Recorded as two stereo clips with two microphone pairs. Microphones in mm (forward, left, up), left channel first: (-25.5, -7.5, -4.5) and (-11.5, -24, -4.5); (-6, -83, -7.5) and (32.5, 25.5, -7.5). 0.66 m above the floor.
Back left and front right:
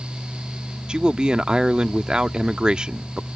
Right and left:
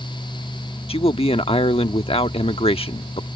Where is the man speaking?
90° right.